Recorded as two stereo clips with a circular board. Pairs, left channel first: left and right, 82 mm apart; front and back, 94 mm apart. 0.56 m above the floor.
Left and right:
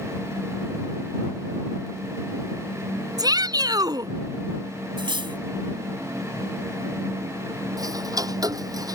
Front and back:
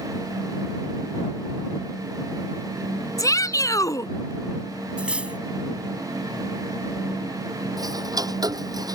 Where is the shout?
55° right.